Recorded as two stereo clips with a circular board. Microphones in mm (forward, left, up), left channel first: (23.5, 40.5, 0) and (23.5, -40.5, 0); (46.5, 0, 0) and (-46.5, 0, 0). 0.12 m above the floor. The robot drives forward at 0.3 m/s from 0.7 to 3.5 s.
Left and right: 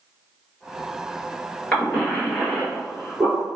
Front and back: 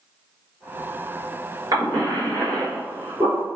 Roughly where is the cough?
Behind.